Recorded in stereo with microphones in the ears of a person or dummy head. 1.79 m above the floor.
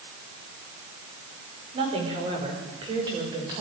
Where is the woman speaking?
30° right (ahead or behind), 5.5 m; by 3.6 s 25° right (ahead or behind), 7 m.